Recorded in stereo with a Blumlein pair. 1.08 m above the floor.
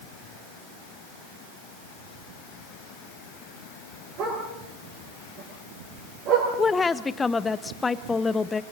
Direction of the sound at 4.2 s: 35° right.